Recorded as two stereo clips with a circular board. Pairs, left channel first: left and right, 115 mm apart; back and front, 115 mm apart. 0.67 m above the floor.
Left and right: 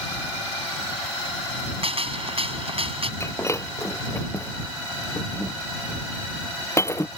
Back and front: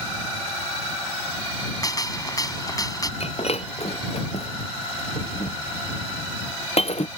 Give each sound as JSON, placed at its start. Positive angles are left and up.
{"t": 1.8, "sound": "a gunshot", "azimuth_deg": -125}
{"t": 3.2, "sound": "breaking glass", "azimuth_deg": 155}